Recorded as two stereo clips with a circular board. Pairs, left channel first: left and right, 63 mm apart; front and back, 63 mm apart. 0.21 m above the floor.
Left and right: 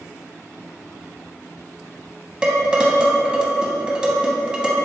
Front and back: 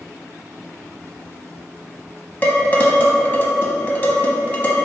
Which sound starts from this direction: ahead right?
Dishes clattering, at 2.4 s.